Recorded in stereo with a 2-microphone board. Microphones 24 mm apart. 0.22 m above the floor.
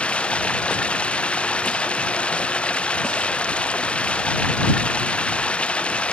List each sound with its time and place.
0.0 s running water: 55° left (ahead or behind)